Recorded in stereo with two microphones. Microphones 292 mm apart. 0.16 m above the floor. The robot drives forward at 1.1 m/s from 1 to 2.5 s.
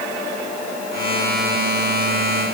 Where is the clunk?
I don't hear a clunk.